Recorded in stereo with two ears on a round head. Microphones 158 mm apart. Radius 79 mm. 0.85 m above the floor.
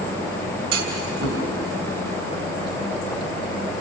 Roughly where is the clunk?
Right.